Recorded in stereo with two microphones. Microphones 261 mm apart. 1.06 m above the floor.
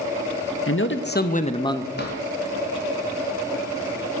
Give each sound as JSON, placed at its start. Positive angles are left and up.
{"t": 0.7, "sound": "a man speaking", "side_deg": 55, "distance_m": 1.0}
{"t": 2.0, "sound": "a drawer", "side_deg": 40, "distance_m": 2.5}